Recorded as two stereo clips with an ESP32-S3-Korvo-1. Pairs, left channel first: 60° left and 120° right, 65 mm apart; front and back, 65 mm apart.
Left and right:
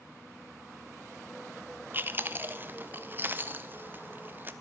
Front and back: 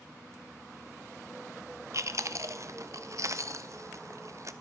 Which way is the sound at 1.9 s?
170° right.